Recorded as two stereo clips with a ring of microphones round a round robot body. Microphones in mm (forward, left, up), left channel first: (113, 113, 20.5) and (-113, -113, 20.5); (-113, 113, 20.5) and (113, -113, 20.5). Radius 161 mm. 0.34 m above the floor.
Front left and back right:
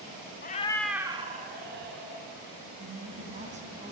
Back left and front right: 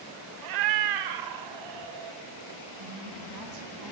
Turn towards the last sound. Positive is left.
turn(degrees=-70)